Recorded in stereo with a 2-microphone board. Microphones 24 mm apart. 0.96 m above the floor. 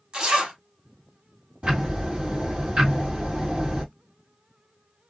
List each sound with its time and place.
0.1 s a zipper: 40° right (ahead or behind), 1.0 m
1.6 s ticking: 60° right (ahead or behind), 1.7 m